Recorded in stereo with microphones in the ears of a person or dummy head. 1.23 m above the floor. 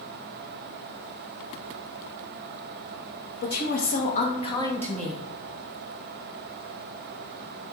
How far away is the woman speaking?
About 2.0 m.